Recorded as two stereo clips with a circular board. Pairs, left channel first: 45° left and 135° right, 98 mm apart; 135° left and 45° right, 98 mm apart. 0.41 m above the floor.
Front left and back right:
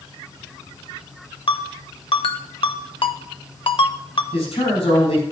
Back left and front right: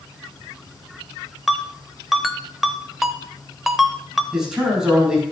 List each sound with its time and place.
1.5 s a ringtone: 45° left, 0.8 m
4.3 s a man speaking: 40° left, 5 m